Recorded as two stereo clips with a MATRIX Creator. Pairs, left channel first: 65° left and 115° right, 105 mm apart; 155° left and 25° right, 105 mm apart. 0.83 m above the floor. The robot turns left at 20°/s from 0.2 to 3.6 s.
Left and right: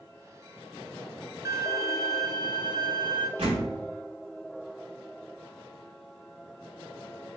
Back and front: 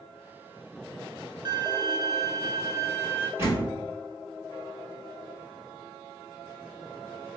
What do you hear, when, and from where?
1.4 s a violin: 50° right, 0.6 m; by 3.3 s 90° right, 0.6 m
3.4 s a door slam: 85° right, 1.5 m; by 3.8 s 90° right, 1.5 m